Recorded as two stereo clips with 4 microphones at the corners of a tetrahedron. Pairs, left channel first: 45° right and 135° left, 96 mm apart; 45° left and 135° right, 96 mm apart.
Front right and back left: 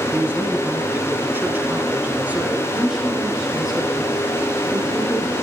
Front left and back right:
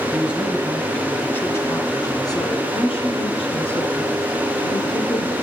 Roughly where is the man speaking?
Behind.